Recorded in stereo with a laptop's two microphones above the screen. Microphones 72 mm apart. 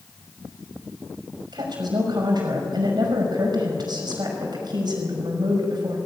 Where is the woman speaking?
80° right, 5.5 m.